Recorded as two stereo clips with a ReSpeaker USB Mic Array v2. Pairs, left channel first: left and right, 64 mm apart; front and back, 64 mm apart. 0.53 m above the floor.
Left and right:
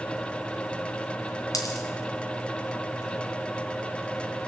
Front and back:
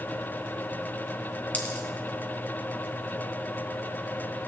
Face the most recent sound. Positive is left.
turn(degrees=65)